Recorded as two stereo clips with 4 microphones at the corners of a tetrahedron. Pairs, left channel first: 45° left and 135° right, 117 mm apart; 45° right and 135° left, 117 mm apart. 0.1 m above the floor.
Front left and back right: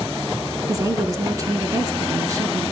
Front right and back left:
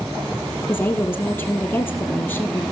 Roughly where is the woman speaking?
Right.